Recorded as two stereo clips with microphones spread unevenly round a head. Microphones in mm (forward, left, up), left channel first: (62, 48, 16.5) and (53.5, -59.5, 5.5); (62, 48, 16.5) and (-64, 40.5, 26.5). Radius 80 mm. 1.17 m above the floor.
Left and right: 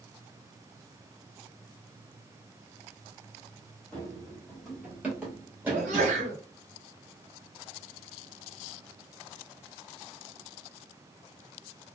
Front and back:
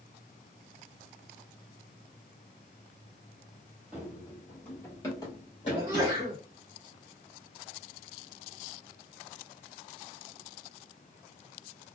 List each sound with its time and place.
3.9 s running footsteps: 120° left, 1.2 m; by 6.3 s 35° right, 1.6 m
5.7 s a sneeze: 105° right, 1.1 m